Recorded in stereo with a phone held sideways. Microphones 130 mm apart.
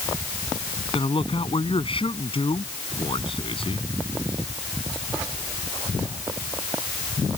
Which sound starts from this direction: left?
A man speaking, at 0.9 s.